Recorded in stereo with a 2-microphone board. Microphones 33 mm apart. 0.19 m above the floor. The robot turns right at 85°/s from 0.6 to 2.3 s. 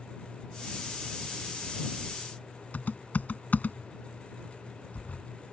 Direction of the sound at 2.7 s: 55° left (ahead or behind).